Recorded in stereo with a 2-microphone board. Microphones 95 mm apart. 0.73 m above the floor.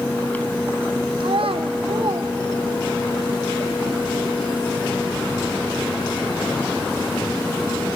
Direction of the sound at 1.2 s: 60° right (ahead or behind).